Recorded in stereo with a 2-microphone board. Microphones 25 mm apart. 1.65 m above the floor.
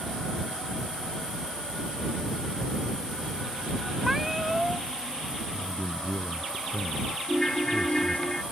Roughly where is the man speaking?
Left.